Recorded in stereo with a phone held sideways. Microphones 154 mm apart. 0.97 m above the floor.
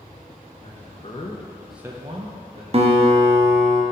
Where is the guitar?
40° right (ahead or behind), 0.7 m.